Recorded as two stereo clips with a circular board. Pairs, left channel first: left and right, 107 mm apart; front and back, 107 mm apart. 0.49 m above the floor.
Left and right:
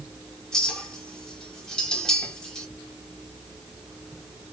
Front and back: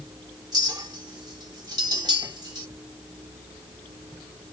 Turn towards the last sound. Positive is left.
turn(degrees=170)